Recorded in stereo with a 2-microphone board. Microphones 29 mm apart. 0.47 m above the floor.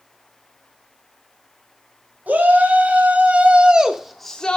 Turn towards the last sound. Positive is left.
turn(degrees=30)  # may be behind; listen again after turning